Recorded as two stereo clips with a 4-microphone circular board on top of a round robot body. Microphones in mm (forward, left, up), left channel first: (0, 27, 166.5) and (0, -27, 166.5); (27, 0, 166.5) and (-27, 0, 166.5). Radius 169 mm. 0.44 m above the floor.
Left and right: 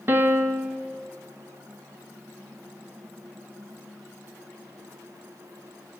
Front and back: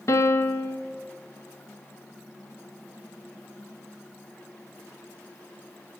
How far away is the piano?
About 0.9 m.